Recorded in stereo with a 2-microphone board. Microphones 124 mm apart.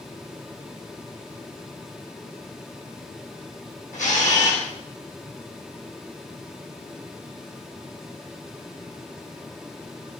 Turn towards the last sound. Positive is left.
turn(degrees=80)